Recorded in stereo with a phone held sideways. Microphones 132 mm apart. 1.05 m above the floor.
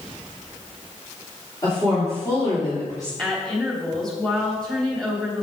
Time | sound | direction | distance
1.6 | a woman speaking | 30° left (ahead or behind) | 2.5 m
3.2 | a woman speaking | 5° left (ahead or behind) | 3 m